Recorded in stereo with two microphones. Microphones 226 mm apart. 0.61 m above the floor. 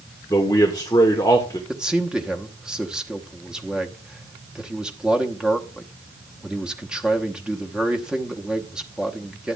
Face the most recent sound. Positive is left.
turn(degrees=-5)  # may be behind; listen again after turning